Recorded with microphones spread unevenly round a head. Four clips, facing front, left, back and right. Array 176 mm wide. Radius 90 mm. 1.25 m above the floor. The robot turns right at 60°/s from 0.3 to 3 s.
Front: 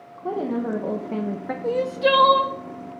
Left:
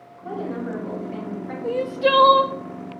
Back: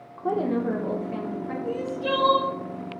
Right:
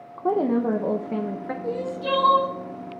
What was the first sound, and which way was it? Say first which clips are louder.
A woman speaking: right 8 dB, back 1 dB; 95° right.